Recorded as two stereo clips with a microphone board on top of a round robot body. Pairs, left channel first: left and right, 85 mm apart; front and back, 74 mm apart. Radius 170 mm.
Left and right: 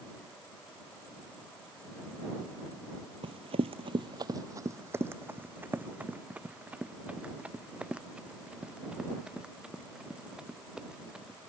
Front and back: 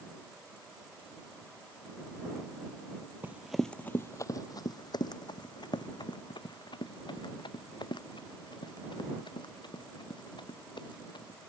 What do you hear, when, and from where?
3.2 s running footsteps: 115° right; by 11.5 s 10° right